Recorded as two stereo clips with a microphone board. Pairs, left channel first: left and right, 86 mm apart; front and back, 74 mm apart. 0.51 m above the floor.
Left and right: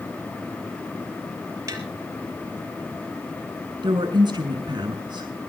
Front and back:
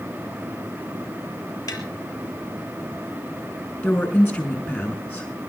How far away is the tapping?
About 4.5 m.